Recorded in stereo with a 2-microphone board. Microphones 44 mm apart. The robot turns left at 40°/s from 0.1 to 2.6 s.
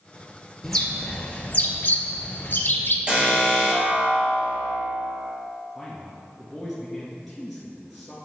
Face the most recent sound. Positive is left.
turn(degrees=-5)  # may be behind; listen again after turning